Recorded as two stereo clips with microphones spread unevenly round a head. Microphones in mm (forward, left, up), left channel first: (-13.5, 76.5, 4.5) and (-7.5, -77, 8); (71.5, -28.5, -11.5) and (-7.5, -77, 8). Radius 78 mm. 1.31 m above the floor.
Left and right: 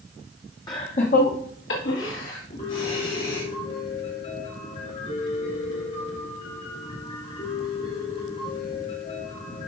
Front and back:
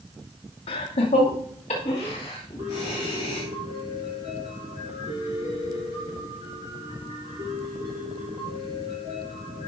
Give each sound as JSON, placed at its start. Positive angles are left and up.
{"t": 0.7, "sound": "laughter", "azimuth_deg": 20, "distance_m": 0.8}
{"t": 2.6, "sound": "a piano", "azimuth_deg": 145, "distance_m": 2.5}